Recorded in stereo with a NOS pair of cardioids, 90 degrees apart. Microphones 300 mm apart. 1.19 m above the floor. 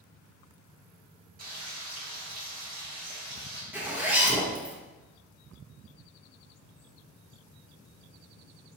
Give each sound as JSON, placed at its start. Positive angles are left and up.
{"t": 1.4, "sound": "frying", "azimuth_deg": -30, "distance_m": 2.0}
{"t": 3.7, "sound": "a zipper", "azimuth_deg": -5, "distance_m": 1.3}